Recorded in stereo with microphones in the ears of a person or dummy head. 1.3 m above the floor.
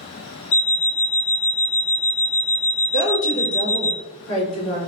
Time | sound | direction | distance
0.5 | an alarm clock | 35° left (ahead or behind) | 0.5 m
2.9 | a woman speaking | 85° left | 1.6 m